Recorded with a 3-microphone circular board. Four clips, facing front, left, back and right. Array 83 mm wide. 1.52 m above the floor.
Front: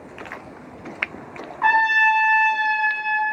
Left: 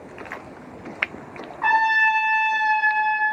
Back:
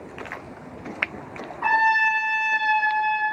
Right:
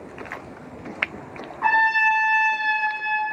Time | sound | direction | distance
1.6 | a trumpet | straight ahead | 1.0 m